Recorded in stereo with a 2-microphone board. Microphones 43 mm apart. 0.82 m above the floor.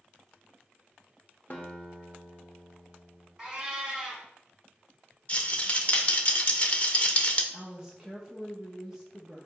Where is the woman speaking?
15° right (ahead or behind), 0.9 m.